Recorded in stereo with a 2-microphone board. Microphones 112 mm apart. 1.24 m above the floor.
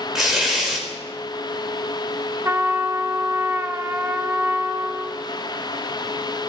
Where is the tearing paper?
5° right (ahead or behind), 2.5 m.